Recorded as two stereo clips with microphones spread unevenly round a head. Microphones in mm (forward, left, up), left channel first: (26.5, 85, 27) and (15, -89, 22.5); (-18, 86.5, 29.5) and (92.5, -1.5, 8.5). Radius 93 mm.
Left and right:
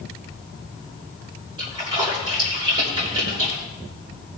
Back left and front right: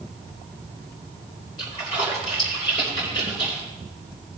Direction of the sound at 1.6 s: 160° right.